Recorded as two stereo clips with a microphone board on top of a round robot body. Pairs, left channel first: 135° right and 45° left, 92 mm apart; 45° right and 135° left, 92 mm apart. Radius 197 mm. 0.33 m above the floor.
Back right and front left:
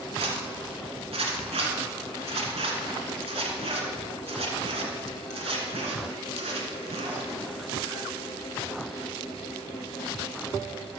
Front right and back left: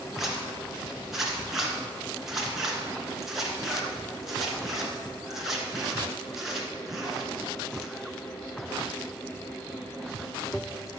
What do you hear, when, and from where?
0.2 s a zipper: 50° left, 2.5 m